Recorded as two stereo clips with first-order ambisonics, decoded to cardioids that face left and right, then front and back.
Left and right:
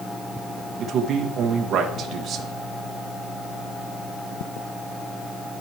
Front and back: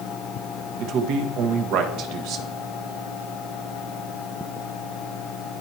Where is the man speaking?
150° right, 1.5 m.